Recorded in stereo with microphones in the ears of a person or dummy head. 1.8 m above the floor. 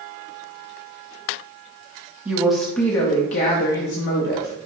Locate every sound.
2.2 s a woman speaking: 15° right (ahead or behind), 0.7 m; by 4.5 s 60° left (ahead or behind), 1.1 m